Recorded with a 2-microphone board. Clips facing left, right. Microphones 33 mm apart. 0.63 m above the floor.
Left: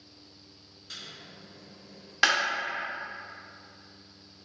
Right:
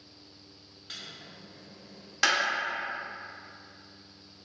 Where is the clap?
15° left (ahead or behind), 0.7 m.